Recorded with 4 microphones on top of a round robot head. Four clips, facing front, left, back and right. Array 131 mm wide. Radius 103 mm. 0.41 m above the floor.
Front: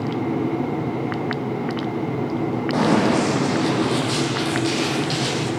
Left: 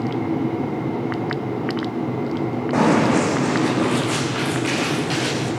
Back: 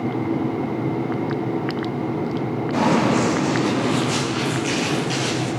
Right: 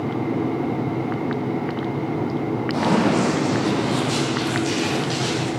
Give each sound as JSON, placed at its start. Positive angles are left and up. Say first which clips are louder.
{"t": 2.7, "sound": "running footsteps", "louder": "left 3 dB, even", "azimuth_deg": 60, "distance_m": 10.0}